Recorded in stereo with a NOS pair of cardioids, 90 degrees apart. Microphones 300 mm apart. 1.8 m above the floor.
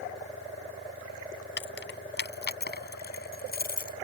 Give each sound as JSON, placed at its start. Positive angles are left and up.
{"t": 1.6, "sound": "keys jangling", "azimuth_deg": 40}